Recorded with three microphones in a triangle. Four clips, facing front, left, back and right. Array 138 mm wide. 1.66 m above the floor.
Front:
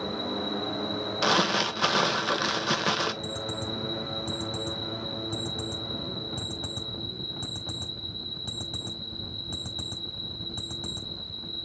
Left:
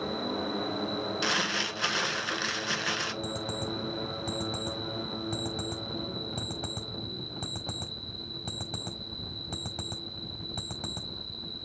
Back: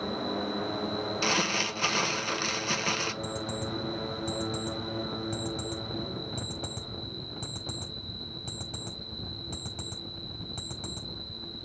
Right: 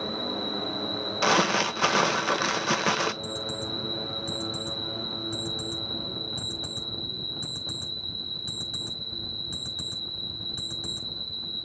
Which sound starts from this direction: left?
An alarm clock, at 3.2 s.